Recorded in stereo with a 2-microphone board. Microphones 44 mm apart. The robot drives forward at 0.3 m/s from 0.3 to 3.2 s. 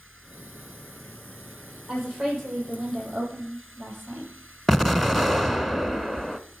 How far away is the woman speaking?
About 7 m.